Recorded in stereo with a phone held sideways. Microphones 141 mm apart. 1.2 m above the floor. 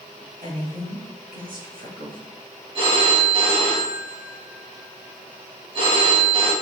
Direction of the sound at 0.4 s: 80° right.